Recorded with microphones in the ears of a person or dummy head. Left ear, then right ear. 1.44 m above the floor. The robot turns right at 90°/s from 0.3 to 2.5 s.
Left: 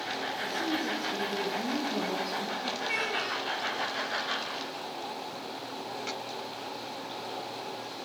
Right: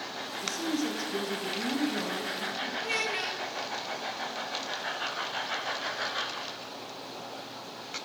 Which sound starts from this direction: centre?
A child speaking, at 2.8 s.